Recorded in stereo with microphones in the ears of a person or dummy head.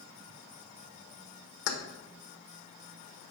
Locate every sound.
1.7 s keys jangling: 70° left (ahead or behind), 1.0 m